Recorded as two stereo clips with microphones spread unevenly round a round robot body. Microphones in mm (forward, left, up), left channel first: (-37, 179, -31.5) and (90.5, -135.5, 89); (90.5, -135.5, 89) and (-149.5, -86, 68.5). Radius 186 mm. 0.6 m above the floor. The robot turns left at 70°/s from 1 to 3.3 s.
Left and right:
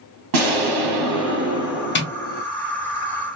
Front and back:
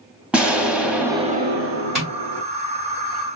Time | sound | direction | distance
0.3 | an explosion | 105° right | 0.8 m
1.9 | tapping | 80° left | 1.5 m